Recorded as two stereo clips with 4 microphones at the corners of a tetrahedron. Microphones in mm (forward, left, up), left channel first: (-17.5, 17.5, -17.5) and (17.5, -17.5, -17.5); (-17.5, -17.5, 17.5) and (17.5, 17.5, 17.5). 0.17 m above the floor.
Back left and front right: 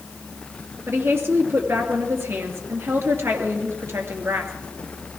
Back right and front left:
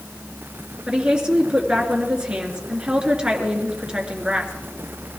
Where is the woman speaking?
25° right, 2.5 m.